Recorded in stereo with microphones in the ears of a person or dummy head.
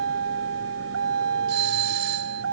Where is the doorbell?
60° right (ahead or behind).